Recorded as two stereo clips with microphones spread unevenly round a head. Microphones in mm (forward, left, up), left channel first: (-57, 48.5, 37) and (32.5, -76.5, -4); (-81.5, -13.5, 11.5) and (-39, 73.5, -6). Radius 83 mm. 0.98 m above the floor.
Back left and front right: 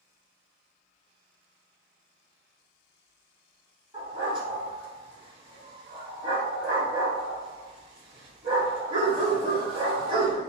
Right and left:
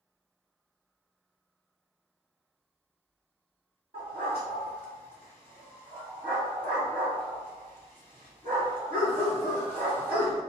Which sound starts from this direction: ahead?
A dog barking, at 3.9 s.